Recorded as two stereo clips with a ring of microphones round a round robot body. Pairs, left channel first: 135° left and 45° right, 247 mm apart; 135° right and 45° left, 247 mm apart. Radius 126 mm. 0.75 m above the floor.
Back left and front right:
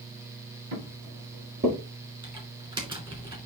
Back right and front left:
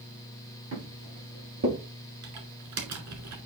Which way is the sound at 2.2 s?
25° left.